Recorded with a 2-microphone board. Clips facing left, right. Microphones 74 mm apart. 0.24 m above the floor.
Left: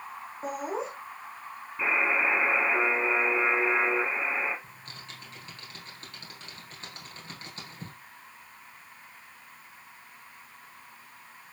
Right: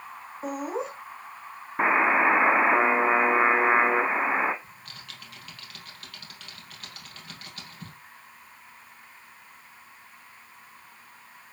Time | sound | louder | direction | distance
0.4 | laughter | right 2 dB | centre (ahead or behind) | 2.5 m
1.8 | a buzzer | right 6 dB | 55° right (ahead or behind) | 1.2 m
4.6 | typing on a keyboard | even | 30° left (ahead or behind) | 4 m